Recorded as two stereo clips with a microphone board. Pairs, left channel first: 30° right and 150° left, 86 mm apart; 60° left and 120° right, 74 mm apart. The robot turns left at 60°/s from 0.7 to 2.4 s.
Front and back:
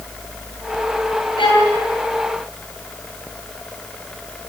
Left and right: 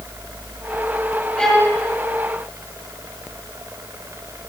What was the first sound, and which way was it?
A violin, 15° right.